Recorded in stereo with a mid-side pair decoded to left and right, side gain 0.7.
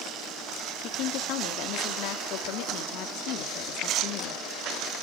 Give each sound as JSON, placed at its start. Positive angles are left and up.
{"t": 0.8, "sound": "a woman speaking", "azimuth_deg": 60, "distance_m": 2.5}